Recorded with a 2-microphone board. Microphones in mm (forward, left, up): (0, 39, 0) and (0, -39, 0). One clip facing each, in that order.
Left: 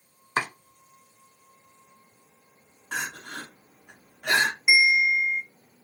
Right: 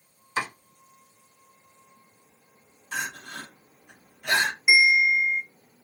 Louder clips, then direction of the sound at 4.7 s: Right 2 dB; 5° right (ahead or behind).